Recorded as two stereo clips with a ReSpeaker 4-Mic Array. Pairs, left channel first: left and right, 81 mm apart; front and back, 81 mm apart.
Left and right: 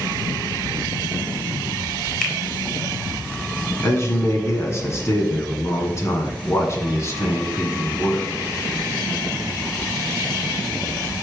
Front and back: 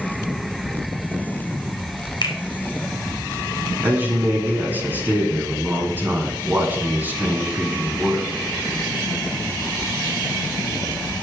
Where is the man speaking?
125° left, 2 m.